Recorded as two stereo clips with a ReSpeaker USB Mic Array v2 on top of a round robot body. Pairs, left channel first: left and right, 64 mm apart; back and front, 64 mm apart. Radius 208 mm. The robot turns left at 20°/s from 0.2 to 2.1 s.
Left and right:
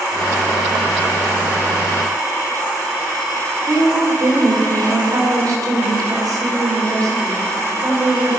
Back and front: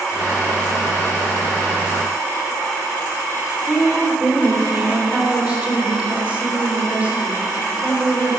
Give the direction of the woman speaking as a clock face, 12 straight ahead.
2 o'clock.